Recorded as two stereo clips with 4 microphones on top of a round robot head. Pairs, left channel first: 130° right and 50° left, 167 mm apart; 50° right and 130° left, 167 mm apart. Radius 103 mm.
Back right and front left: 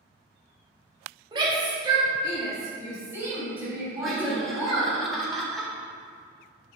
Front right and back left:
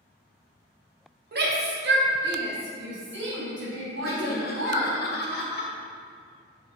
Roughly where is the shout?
Left.